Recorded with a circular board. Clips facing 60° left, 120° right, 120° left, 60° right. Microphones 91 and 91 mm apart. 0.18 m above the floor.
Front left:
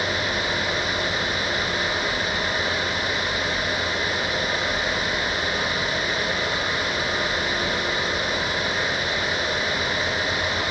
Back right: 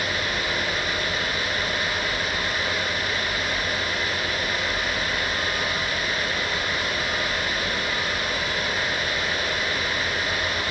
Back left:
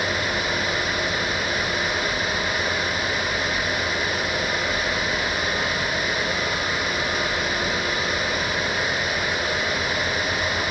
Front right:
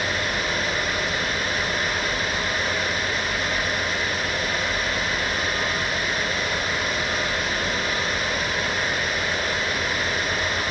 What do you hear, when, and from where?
Only background noise.